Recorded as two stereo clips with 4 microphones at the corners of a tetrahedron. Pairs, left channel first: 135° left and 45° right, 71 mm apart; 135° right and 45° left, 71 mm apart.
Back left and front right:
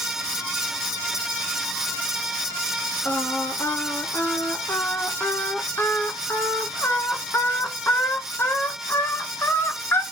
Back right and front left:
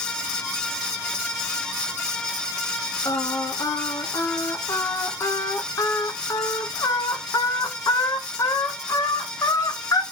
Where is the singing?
170° right, 0.5 m.